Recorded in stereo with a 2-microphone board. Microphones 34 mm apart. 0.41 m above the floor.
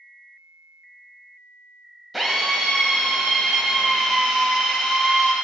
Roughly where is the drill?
Centre.